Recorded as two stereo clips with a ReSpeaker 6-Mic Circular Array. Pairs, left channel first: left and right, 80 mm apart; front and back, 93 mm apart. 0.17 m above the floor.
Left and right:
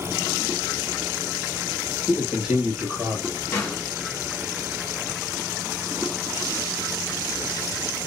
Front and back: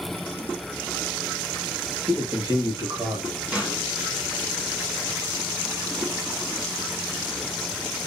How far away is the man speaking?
About 1.5 m.